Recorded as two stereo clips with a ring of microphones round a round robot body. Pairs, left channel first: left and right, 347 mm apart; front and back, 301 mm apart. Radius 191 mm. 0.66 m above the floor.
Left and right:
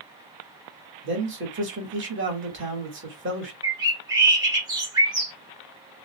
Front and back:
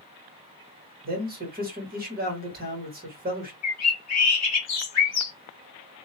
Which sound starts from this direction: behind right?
A man speaking, at 1.0 s.